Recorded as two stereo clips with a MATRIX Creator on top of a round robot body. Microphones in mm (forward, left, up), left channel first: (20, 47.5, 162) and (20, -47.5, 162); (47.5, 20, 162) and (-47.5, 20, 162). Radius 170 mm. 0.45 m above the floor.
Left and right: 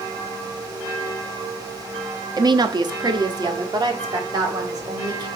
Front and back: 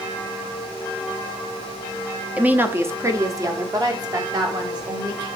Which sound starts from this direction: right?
A woman speaking, at 2.4 s.